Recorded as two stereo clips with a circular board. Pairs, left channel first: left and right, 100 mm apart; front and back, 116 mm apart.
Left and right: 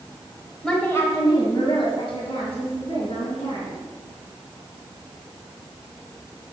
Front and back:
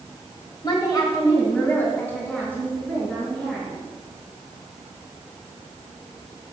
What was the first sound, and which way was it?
A woman speaking, 10° left.